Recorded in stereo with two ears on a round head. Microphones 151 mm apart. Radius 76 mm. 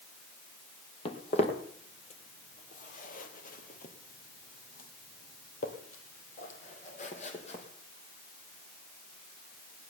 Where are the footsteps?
40° left (ahead or behind), 2.5 m.